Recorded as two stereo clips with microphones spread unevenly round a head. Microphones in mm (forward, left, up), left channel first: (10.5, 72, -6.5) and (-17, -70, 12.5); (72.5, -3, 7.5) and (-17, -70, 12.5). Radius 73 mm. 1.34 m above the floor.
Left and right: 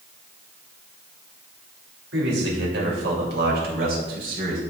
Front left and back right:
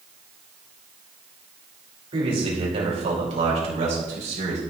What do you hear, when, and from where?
2.1 s a man speaking: 110° right, 3.5 m; by 4.6 s 135° right, 4 m